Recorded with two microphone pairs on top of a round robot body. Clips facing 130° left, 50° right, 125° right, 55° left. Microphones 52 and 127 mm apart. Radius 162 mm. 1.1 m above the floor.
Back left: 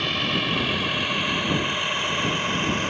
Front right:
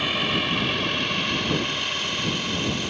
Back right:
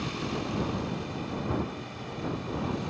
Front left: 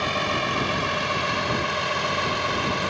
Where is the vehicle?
35° left; by 2.9 s 70° left.